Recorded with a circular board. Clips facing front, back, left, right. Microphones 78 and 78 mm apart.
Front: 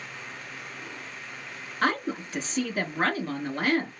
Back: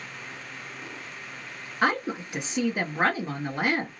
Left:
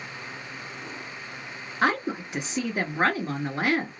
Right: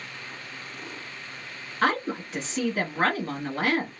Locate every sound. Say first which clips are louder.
1.8 s a woman speaking: back 1 dB, even; 130° left, 1.2 m